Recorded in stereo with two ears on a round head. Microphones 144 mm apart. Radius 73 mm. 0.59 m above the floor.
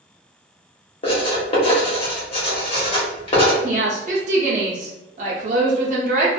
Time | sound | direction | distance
1.0 | writing | 35° left (ahead or behind) | 1.2 m
3.6 | a woman speaking | 45° right (ahead or behind) | 0.8 m